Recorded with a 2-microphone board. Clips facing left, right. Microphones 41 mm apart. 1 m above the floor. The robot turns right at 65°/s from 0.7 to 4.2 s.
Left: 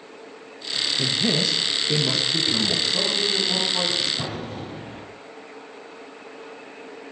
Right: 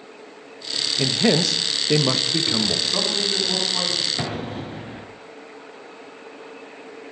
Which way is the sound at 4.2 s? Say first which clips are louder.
Right 3 dB; 40° right (ahead or behind).